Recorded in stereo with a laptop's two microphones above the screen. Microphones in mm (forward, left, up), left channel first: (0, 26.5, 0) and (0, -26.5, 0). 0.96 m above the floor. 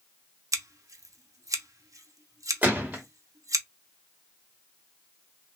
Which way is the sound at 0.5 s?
85° right.